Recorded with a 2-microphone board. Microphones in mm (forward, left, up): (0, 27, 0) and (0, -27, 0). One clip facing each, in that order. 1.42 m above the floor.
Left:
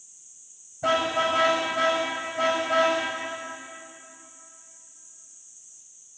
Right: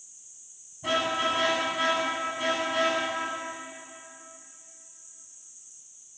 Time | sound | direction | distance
0.8 | a car horn | 85° left | 5 m